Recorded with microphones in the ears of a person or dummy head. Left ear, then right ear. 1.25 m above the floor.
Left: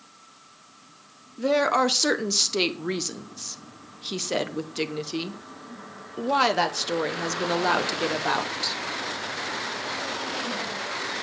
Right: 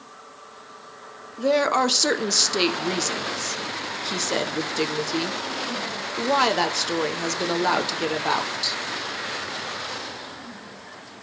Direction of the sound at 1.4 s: Centre (ahead or behind).